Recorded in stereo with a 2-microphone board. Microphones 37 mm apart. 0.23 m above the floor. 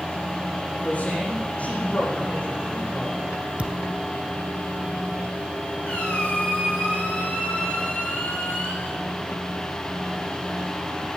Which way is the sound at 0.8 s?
40° left (ahead or behind).